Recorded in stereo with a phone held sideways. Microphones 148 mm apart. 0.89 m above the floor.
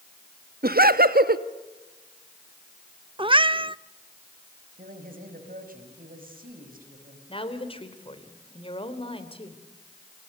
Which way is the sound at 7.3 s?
35° left (ahead or behind).